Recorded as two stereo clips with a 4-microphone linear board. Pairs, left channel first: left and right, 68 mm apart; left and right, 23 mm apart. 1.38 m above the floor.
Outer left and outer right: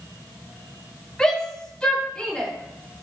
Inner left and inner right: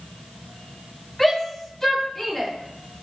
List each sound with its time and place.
1.2 s a shout: 5° left (ahead or behind), 4 m; by 2.5 s 15° left (ahead or behind), 3.5 m